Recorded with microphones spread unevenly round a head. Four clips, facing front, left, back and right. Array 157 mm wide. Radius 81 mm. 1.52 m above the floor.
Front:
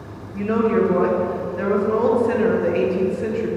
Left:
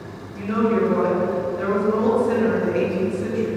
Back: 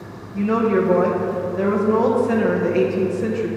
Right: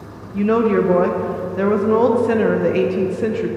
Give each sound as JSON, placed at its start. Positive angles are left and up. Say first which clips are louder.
{"t": 0.3, "sound": "a woman speaking", "louder": "right 5 dB, even", "azimuth_deg": -105, "distance_m": 0.7}